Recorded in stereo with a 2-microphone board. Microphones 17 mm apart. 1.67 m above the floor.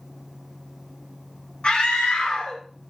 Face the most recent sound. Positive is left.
turn(degrees=75)  # may be behind; listen again after turning